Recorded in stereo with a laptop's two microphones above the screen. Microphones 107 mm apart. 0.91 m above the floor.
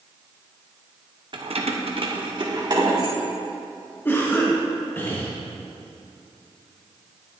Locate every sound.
1.3 s keys jangling: 50° right (ahead or behind), 0.7 m; by 3.1 s 35° right (ahead or behind), 2.5 m
4.0 s a cough: 20° left (ahead or behind), 1.0 m